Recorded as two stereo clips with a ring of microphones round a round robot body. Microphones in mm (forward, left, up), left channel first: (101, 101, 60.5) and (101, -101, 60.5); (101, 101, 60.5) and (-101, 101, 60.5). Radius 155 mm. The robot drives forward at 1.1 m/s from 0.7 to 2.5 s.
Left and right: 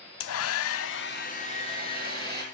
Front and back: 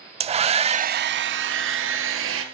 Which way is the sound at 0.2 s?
115° left.